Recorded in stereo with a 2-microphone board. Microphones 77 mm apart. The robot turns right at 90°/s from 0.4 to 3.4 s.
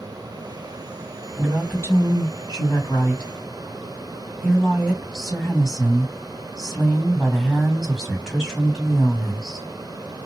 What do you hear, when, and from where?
1.4 s a woman speaking: 5° right, 2.0 m; by 9.7 s straight behind, 2.0 m